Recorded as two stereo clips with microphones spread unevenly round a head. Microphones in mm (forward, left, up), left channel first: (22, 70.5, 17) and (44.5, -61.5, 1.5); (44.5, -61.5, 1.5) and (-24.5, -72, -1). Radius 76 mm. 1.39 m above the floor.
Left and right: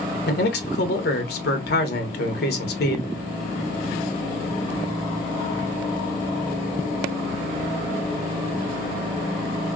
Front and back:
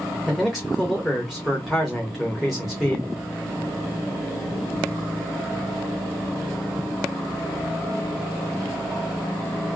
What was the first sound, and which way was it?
A man speaking, 100° left.